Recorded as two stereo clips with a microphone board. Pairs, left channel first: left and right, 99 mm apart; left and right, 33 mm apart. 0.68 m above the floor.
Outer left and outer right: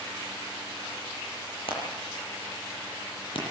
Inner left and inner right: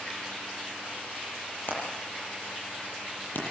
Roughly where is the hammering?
Left.